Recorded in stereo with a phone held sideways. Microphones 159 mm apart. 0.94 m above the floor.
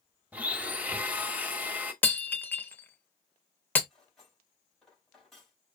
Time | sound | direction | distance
0.3 | a blender | 10° right (ahead or behind) | 0.8 m
2.0 | breaking glass | 10° left (ahead or behind) | 0.7 m
3.9 | cutlery clinking | centre (ahead or behind) | 3 m